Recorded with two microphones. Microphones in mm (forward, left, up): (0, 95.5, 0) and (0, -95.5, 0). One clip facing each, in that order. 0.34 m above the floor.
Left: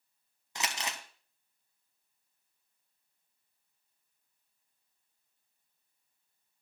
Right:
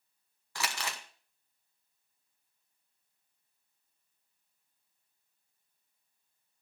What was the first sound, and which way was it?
Crumpling, 20° left (ahead or behind).